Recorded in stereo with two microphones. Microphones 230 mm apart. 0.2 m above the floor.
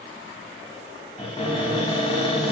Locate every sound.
1.2 s a cupboard door: 25° left (ahead or behind), 1.0 m